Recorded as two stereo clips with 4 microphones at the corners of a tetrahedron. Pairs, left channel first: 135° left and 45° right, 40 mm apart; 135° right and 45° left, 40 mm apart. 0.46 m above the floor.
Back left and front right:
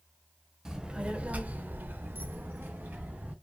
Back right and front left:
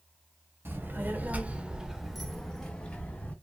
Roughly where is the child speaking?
Ahead left.